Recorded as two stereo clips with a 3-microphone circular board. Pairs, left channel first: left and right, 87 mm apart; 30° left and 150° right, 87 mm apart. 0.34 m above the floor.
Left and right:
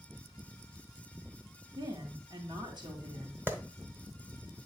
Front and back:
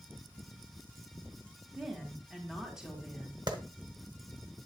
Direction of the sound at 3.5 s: 150° right.